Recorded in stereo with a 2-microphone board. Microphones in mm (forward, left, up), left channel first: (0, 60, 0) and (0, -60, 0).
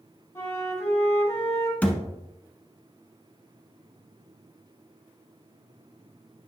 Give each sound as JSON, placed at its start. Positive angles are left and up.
{"t": 0.3, "sound": "a flute", "side_deg": 25, "distance_m": 1.3}
{"t": 1.8, "sound": "a thud", "side_deg": 10, "distance_m": 0.9}